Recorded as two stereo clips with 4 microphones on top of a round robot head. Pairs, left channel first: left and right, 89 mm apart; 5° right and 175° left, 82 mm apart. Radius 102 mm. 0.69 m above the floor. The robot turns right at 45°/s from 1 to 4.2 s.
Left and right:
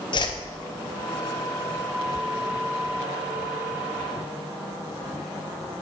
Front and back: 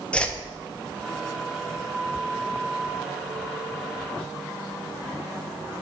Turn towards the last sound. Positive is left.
turn(degrees=-145)